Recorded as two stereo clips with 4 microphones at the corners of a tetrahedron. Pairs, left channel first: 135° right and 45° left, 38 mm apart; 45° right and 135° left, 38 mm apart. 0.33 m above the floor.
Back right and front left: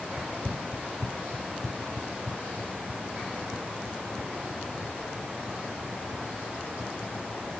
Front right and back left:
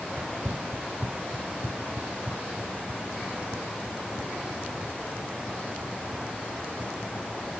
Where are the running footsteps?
120° left; by 7.5 s 160° left.